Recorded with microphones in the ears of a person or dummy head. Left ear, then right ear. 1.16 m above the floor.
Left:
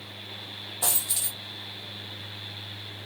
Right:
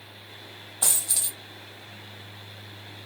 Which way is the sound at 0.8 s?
5° right (ahead or behind).